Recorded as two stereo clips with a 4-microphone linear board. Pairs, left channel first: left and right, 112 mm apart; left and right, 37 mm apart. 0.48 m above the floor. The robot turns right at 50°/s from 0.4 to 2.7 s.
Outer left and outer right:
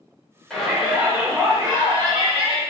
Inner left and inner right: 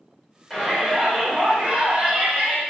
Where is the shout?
175° left, 1.4 m; by 2.6 s 80° right, 1.4 m.